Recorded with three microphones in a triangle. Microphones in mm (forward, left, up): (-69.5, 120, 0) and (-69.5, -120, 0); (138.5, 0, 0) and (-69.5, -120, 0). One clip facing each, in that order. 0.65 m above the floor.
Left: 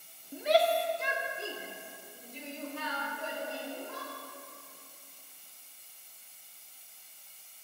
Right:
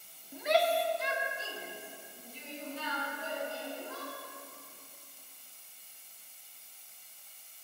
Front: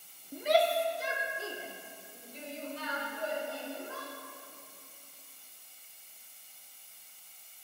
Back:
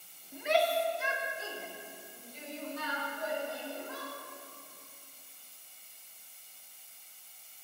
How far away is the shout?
About 0.9 m.